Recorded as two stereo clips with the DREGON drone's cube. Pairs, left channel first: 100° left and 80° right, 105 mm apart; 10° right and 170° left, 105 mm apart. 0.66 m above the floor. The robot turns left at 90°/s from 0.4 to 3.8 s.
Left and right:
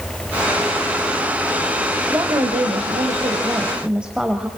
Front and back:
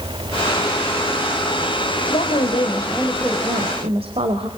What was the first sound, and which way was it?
A woman speaking, 10° right.